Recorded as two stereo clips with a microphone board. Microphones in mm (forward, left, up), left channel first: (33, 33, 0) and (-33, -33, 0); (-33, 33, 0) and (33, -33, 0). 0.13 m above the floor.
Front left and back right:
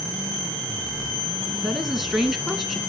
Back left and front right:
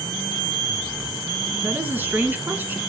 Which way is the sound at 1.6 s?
55° right.